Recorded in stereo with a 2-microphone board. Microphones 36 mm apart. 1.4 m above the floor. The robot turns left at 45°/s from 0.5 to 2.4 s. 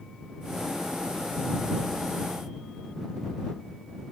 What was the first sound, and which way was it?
Only background noise.